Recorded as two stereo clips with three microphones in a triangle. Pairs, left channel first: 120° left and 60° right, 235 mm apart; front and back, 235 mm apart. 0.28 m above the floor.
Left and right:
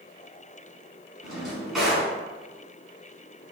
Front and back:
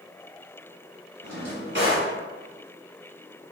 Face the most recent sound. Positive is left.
turn(degrees=-150)